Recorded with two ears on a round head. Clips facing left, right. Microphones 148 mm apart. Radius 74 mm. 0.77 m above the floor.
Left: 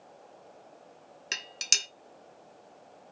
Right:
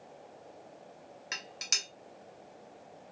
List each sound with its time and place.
1.3 s dishes clattering: 35° left (ahead or behind), 0.5 m